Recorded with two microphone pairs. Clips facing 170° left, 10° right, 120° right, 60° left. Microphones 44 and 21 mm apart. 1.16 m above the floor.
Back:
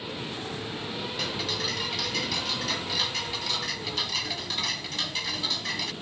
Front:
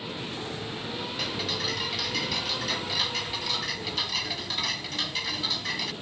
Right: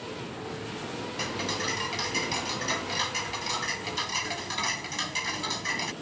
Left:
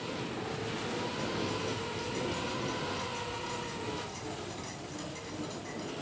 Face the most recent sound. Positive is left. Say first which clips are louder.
# even, right 4 dB
turn(degrees=-95)